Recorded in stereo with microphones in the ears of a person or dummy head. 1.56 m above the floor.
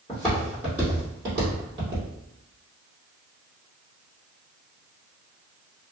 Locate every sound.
0.1 s footsteps: 10° left (ahead or behind), 1.6 m; by 2.0 s 30° right (ahead or behind), 1.8 m